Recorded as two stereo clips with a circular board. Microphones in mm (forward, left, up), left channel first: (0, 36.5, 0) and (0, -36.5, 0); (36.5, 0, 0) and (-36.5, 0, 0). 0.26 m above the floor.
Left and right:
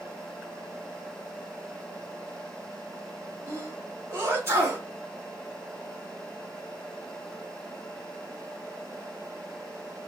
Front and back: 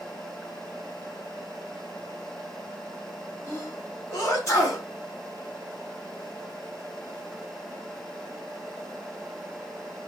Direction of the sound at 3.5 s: 40° right.